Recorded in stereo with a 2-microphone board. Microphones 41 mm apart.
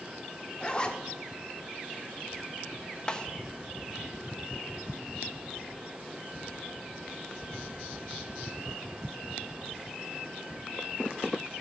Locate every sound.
0.6 s a zipper: 20° left (ahead or behind), 1.0 m
3.1 s a snare drum: 20° left (ahead or behind), 0.8 m